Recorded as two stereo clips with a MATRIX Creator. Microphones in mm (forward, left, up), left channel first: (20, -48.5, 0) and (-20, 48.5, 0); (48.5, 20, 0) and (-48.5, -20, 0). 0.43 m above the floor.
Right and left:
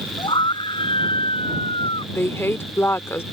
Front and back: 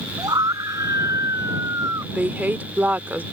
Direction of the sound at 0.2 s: 105° right.